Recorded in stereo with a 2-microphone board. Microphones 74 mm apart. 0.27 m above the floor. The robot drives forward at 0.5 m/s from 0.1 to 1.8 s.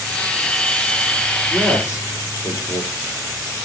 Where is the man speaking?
40° left (ahead or behind), 7 m.